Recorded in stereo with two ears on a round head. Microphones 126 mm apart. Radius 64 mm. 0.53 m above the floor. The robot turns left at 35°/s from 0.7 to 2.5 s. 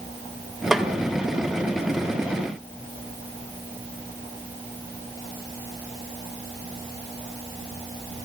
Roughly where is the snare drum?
Centre.